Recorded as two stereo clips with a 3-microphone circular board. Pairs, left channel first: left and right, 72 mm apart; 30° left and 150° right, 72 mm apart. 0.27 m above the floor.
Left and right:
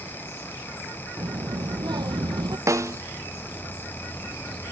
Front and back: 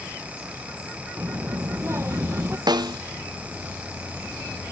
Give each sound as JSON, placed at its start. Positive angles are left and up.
{"t": 1.2, "sound": "a child speaking", "azimuth_deg": -100}
{"t": 2.7, "sound": "a snare drum", "azimuth_deg": -135}